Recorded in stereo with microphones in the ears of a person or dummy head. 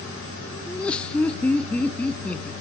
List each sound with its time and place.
0.7 s laughter: 5° left (ahead or behind), 0.6 m